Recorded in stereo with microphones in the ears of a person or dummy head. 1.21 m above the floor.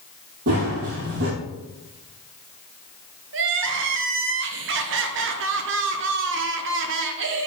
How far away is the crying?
About 0.8 m.